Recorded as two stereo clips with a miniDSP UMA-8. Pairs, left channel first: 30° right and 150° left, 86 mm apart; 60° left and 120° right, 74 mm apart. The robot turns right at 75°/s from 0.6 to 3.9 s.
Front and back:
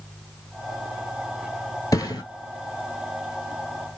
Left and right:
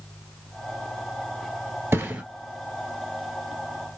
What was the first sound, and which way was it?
A thud, 70° right.